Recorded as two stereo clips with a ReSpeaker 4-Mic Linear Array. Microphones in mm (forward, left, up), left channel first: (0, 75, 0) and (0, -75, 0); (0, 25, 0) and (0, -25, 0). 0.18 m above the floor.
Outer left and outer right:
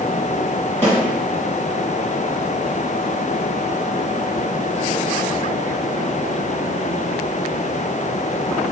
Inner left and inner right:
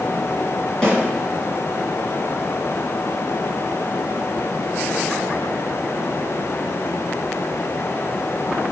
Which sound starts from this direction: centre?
A snare drum, at 0.8 s.